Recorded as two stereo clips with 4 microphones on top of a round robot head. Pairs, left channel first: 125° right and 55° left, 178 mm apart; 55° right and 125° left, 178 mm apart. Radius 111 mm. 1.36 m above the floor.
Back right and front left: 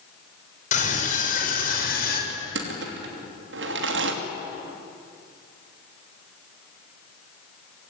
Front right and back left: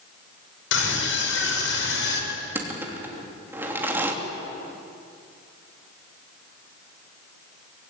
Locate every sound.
0.7 s a scream: 75° right, 6.5 m; by 2.2 s 80° right, 6.5 m
2.3 s crushing: 45° left, 3 m